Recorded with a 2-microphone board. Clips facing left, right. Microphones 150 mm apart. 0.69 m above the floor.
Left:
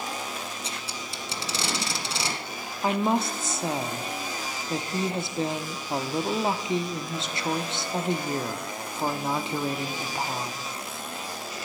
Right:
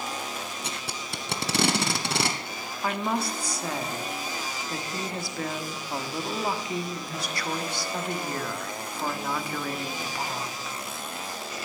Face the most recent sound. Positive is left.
turn(degrees=25)  # may be behind; listen again after turning